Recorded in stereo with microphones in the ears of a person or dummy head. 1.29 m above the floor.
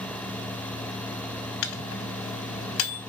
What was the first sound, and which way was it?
A microwave, 65° left (ahead or behind).